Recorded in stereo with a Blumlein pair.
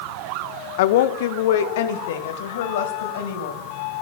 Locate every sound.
0.8 s a woman speaking: 50° left, 0.6 m; by 3.7 s 55° left, 2.5 m